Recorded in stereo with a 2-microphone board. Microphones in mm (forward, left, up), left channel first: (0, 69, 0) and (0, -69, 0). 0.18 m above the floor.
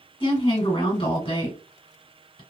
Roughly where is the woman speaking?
Left.